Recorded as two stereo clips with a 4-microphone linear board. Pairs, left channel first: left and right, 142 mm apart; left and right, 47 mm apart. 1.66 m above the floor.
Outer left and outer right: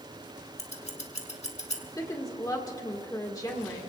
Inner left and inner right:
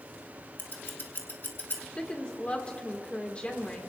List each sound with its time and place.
0.6 s scissors: 55° left (ahead or behind), 2 m
2.0 s a woman speaking: 25° left (ahead or behind), 2 m